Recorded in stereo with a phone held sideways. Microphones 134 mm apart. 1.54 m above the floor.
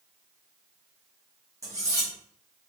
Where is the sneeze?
No sneeze in this recording.